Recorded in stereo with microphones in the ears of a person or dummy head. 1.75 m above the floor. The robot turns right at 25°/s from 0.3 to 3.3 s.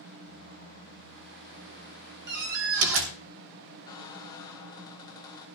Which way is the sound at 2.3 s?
60° right (ahead or behind).